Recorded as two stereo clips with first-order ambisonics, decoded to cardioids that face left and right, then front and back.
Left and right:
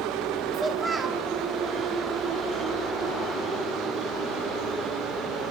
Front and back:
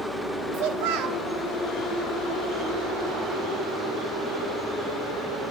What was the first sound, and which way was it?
A child speaking, 175° right.